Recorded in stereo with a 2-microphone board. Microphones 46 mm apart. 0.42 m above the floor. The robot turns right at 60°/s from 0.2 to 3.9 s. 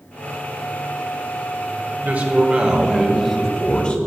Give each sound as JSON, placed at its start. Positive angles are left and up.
{"t": 2.0, "sound": "a man speaking", "azimuth_deg": -65, "distance_m": 1.4}